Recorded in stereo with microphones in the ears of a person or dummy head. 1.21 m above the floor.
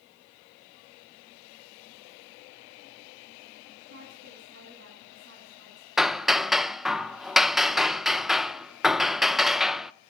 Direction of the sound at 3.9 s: 65° right (ahead or behind).